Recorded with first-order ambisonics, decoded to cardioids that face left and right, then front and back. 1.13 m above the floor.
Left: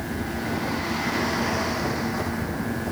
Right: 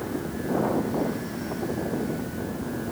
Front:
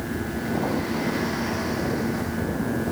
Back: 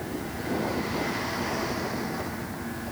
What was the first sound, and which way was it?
Only background noise.